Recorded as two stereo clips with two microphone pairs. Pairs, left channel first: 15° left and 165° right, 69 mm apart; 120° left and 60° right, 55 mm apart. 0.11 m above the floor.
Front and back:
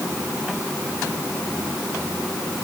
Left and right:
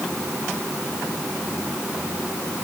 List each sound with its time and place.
Only background noise.